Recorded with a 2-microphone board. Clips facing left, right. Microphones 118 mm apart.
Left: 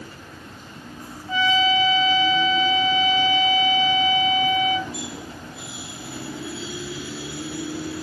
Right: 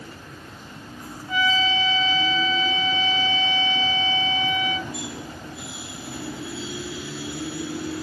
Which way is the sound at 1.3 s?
30° left (ahead or behind).